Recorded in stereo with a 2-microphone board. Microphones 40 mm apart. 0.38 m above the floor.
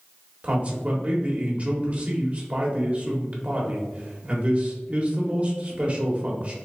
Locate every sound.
0.4 s a man speaking: 35° right (ahead or behind), 1.0 m